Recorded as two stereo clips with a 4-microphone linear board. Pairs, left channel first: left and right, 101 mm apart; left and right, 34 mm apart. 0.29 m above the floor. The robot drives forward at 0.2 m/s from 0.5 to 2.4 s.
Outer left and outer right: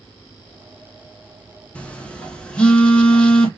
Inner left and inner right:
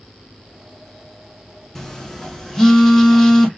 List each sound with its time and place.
1.8 s a phone buzzing: 15° left (ahead or behind), 0.5 m; by 3.5 s 10° left (ahead or behind), 0.7 m